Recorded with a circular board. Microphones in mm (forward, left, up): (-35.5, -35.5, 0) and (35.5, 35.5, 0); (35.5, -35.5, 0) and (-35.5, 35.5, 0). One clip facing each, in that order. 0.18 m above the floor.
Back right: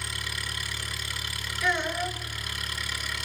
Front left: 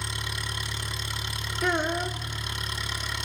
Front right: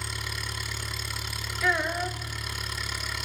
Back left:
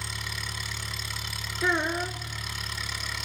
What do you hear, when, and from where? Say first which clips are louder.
0.0 s an engine running: front left 2 dB, front right 1 dB; 40° left, 1.3 m
1.6 s a child speaking: front left 2 dB, even; 80° left, 1.3 m